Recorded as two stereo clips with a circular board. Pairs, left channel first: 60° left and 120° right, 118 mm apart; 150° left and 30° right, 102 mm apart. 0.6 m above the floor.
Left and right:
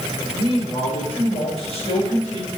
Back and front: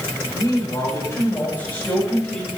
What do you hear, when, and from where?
0.3 s a man speaking: 100° left, 2.5 m; by 2.5 s 65° left, 4 m